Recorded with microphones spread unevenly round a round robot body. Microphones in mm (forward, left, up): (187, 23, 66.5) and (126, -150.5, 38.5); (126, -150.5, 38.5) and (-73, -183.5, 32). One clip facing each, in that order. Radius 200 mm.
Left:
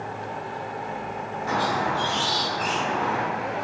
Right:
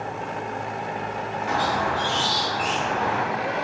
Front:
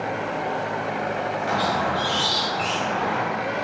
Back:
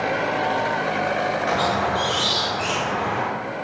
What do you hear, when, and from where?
1.5 s a squeak: 120° left, 0.8 m